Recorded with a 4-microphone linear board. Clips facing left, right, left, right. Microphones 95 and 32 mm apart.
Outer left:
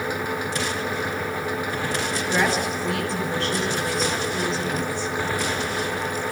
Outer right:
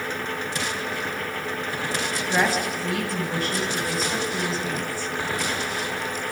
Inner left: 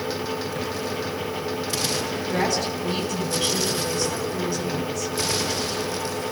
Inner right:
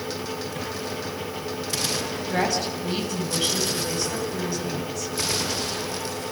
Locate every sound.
2.2 s a woman speaking: centre (ahead or behind), 7 m